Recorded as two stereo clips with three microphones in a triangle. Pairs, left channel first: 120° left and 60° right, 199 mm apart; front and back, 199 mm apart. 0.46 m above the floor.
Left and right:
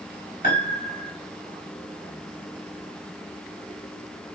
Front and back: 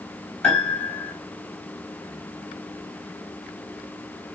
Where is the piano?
85° left, 3 m.